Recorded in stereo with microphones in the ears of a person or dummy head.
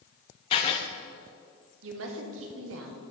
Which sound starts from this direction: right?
A woman speaking, at 1.8 s.